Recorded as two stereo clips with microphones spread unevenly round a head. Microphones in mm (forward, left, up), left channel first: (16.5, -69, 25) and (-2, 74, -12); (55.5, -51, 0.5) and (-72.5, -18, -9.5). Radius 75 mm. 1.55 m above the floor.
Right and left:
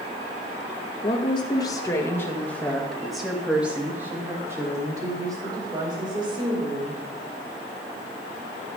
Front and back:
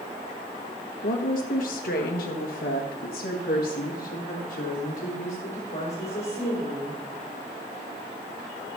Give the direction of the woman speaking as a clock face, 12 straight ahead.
1 o'clock.